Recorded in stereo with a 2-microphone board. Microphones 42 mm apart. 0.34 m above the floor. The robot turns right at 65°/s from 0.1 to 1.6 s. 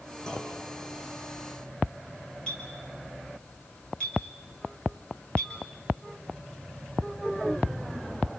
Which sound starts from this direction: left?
A clink, at 2.5 s.